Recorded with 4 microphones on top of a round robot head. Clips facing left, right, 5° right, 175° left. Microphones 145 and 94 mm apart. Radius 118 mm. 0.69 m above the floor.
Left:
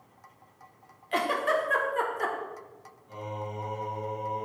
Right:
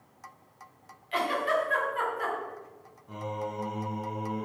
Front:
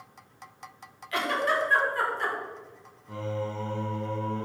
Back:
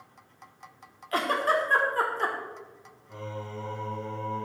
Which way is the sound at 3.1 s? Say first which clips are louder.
Right 2 dB, front 6 dB; 40° right.